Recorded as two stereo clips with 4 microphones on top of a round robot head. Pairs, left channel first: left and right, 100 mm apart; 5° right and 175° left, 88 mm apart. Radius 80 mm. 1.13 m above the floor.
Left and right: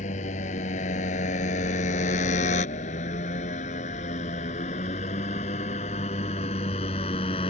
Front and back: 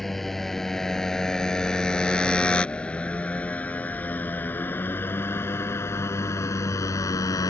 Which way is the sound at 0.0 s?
80° left.